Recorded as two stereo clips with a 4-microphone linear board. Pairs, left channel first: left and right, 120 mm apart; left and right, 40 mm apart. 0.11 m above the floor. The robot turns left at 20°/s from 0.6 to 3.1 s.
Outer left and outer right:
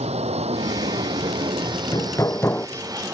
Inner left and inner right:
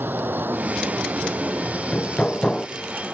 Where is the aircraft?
115° right; by 3.1 s 165° right.